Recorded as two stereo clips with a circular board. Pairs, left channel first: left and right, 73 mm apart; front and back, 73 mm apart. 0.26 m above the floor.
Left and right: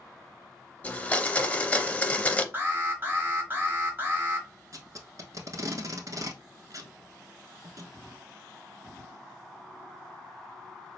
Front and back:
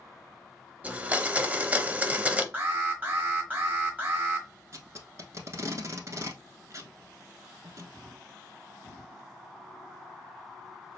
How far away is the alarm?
About 1.1 m.